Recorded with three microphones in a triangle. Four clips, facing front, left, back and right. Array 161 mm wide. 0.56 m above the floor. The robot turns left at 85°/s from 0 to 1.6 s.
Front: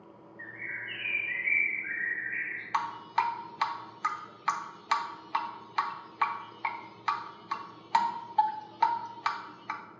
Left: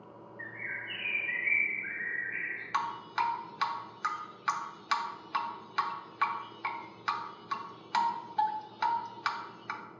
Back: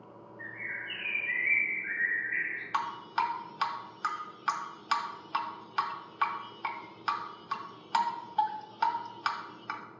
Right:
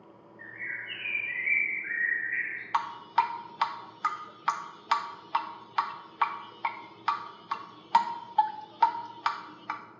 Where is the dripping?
65° right, 0.6 m.